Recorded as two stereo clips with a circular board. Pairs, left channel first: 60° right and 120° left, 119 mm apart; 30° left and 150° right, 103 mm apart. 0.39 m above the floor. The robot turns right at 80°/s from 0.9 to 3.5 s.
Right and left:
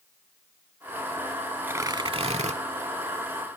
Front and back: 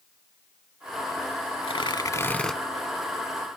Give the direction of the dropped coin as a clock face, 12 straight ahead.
No dropped coin in this recording.